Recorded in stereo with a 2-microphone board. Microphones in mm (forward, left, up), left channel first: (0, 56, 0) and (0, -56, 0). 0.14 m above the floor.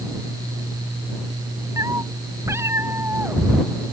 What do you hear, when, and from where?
1.8 s a cat meowing: 30° right (ahead or behind); by 3.7 s 15° right (ahead or behind)